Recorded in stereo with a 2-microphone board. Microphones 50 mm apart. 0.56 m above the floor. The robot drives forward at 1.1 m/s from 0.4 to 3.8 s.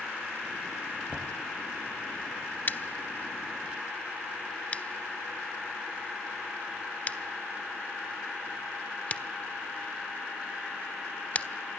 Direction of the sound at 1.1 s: 20° left (ahead or behind).